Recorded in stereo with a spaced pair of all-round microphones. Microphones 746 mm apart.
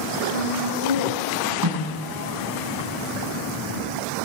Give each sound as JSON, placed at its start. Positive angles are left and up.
{"t": 0.3, "sound": "laughter", "side_deg": 80, "distance_m": 7.5}
{"t": 1.6, "sound": "a snare drum", "side_deg": -30, "distance_m": 8.5}